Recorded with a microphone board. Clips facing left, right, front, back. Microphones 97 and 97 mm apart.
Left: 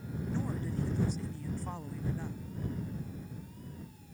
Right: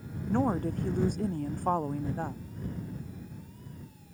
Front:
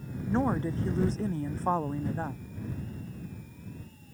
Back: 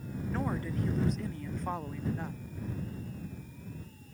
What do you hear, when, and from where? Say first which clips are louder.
0.3 s a woman speaking: right 10 dB, front 7 dB; 60° right; by 2.4 s 55° right